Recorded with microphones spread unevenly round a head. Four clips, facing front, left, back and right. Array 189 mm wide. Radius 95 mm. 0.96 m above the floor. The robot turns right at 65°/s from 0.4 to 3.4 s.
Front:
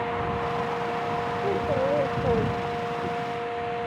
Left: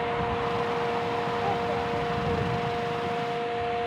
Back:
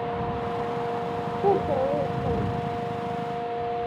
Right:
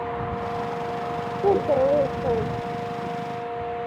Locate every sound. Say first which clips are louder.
1.4 s a child speaking: right 8 dB, back 4 dB; 110° right; by 3.1 s straight ahead